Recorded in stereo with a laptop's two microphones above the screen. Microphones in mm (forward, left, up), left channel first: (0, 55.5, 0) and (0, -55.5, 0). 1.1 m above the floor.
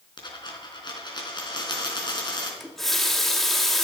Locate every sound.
0.2 s a dropped coin: 40° left (ahead or behind), 4 m
2.6 s a running tap: 5° left (ahead or behind), 1.5 m